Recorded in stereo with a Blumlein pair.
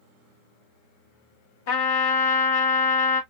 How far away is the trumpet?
About 1.3 m.